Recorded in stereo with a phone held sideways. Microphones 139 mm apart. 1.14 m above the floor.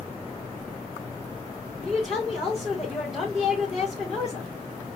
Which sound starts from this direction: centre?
A woman speaking, at 1.8 s.